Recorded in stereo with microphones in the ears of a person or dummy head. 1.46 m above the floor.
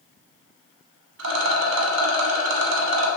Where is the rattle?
80° right, 0.8 m.